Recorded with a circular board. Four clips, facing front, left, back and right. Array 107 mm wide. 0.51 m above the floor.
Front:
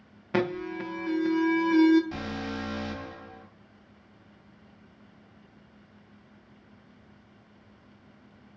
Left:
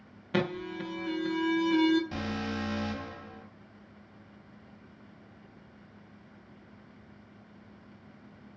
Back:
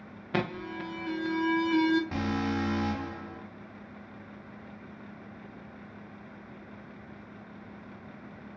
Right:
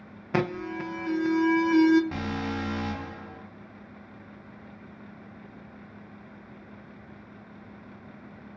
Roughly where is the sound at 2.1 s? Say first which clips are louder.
Right 3 dB, back 4 dB; behind right.